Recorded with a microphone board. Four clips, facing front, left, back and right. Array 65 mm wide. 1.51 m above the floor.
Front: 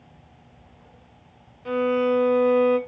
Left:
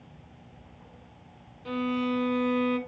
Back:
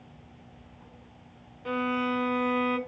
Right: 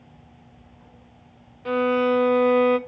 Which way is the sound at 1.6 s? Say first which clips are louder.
Right 8 dB, front 7 dB; 95° right.